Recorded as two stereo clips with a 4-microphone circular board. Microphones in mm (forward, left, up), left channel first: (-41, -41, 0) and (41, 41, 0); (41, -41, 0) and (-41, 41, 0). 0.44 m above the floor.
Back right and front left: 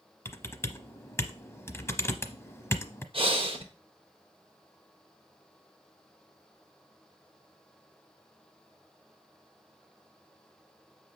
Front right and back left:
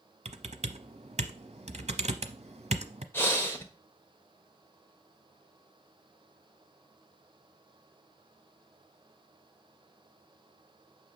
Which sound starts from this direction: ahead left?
Breathing, at 3.1 s.